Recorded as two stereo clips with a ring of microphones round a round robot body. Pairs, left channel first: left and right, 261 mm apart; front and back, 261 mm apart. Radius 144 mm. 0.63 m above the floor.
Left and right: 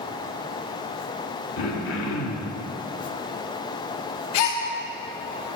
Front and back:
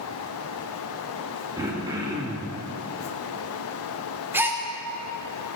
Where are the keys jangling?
No keys jangling in this recording.